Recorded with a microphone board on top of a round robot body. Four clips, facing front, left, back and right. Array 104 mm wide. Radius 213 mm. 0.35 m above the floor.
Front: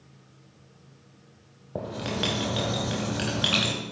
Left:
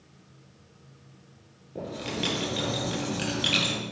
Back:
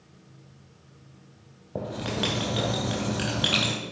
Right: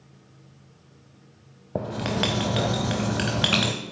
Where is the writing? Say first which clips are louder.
Right 6 dB, even; 85° right, 0.6 m.